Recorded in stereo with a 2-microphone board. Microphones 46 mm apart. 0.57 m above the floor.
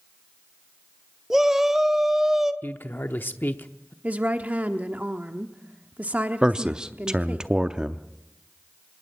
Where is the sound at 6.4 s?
20° right (ahead or behind), 0.6 m.